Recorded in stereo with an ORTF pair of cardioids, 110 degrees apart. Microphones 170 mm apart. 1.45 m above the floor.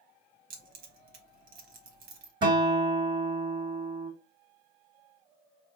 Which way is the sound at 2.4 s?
30° right.